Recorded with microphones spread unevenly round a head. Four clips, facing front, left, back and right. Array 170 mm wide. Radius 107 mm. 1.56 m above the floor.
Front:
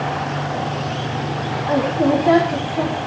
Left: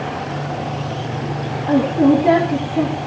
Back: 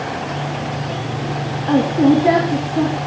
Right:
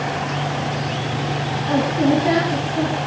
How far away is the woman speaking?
About 6 m.